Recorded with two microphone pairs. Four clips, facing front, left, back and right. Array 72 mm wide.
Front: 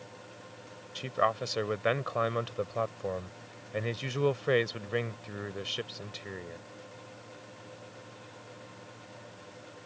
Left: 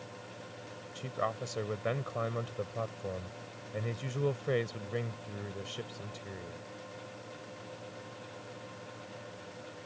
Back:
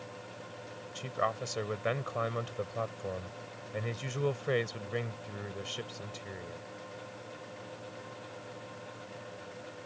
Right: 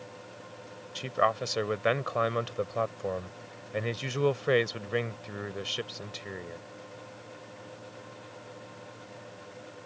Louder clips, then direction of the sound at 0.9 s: Right 8 dB, front 4 dB; 70° right.